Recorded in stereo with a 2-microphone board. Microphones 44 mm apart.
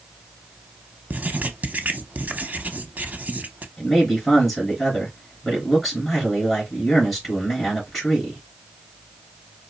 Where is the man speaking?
5° right (ahead or behind), 3.5 m.